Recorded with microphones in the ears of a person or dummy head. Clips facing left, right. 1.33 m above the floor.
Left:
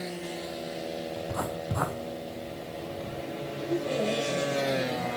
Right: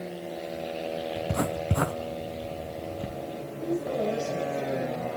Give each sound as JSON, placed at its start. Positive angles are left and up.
{"t": 1.2, "sound": "writing", "side_deg": -30, "distance_m": 0.9}
{"t": 3.6, "sound": "a woman speaking", "side_deg": 5, "distance_m": 6.5}